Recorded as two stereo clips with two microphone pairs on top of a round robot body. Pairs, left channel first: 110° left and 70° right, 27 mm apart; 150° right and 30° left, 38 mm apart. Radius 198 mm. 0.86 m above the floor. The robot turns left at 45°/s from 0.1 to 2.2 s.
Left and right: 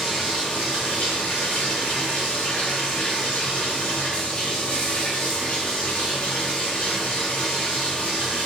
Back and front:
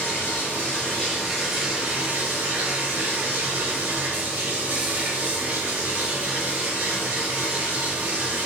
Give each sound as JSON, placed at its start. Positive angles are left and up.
{"t": 0.0, "sound": "running water", "azimuth_deg": 170, "distance_m": 0.7}